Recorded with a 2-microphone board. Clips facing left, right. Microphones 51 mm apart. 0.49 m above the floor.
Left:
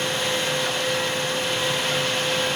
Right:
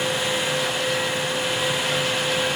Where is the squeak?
No squeak in this recording.